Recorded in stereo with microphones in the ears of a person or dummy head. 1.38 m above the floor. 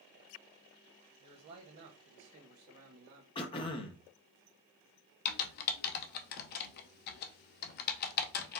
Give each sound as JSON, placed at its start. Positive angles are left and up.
{"t": 1.2, "sound": "a man speaking", "side_deg": -40, "distance_m": 0.7}
{"t": 3.4, "sound": "throat clearing", "side_deg": 35, "distance_m": 0.7}
{"t": 5.2, "sound": "typing on a keyboard", "side_deg": 60, "distance_m": 0.6}